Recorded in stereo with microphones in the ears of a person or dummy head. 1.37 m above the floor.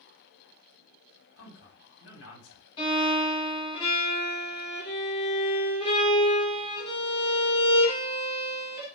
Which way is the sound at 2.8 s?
25° left (ahead or behind).